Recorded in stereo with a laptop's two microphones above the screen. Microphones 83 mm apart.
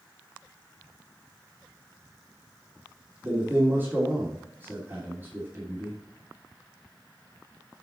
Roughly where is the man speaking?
Right.